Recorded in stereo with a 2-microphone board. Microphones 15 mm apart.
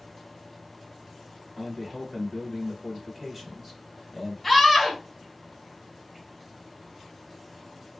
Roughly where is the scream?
Centre.